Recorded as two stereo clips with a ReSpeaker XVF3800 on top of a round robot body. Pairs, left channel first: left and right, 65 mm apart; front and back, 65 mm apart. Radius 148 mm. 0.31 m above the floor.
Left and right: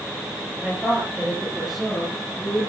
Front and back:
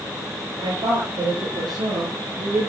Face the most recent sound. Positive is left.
turn(degrees=175)